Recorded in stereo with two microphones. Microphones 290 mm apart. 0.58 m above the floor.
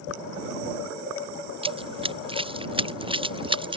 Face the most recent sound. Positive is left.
turn(degrees=-15)  # may be behind; listen again after turning